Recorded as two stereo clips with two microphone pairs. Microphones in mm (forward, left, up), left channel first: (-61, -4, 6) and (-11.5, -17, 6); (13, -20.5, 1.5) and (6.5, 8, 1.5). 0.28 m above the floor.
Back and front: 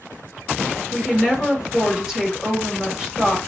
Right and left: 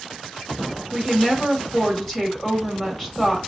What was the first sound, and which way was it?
A woman speaking, 80° right.